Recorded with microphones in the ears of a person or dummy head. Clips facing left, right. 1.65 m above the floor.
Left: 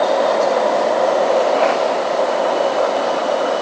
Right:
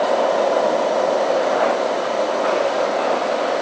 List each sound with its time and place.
Only background noise.